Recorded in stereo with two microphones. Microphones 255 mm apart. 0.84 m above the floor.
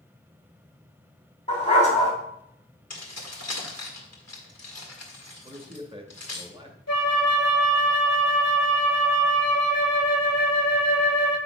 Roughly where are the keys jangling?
Left.